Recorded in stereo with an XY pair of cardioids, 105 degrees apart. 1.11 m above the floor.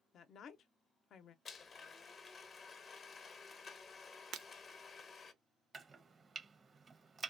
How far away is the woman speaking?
About 0.6 m.